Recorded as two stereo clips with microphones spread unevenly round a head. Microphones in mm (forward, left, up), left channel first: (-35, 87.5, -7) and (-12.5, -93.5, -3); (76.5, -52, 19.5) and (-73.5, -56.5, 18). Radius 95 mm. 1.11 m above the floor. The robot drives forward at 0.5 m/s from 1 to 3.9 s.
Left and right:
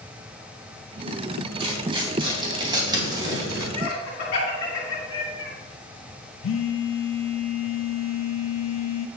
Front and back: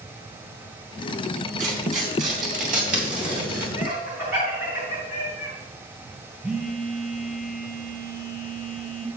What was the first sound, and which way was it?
Tearing paper, 145° right.